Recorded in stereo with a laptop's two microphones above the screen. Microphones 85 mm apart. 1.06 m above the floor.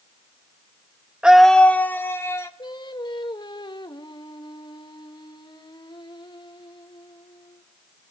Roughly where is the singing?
Left.